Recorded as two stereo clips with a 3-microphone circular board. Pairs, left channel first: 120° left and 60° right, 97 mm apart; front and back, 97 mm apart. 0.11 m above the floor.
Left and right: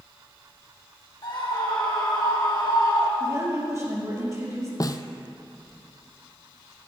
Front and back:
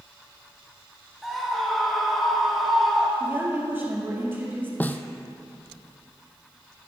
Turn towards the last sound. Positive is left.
turn(degrees=70)